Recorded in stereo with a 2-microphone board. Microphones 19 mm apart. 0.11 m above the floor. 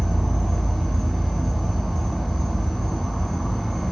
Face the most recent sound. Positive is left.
turn(degrees=0)  # may be behind; listen again after turning